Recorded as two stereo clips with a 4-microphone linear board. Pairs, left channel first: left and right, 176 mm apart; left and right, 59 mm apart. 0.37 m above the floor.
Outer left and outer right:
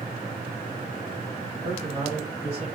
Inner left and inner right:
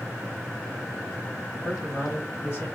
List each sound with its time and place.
1.6 s a man speaking: 55° left (ahead or behind), 1.5 m; by 2.7 s 30° left (ahead or behind), 1.0 m